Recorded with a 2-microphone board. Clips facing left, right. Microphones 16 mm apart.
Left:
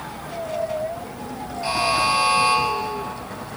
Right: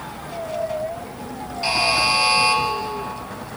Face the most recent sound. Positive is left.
turn(degrees=-50)  # may be behind; listen again after turning